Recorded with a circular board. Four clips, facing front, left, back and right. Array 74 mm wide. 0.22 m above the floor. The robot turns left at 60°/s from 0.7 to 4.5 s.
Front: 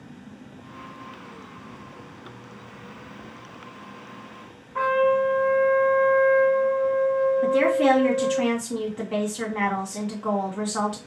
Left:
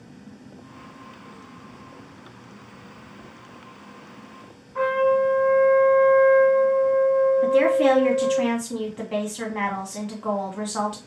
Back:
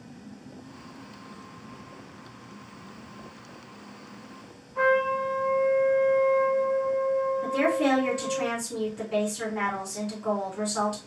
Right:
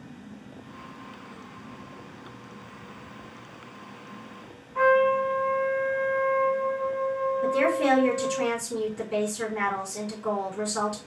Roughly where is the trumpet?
Ahead.